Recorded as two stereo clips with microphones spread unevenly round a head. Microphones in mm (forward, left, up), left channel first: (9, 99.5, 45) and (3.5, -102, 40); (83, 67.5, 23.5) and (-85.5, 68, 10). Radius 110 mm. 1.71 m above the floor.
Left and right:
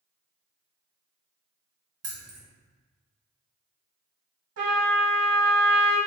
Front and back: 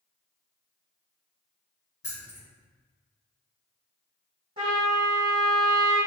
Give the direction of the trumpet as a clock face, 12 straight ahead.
4 o'clock.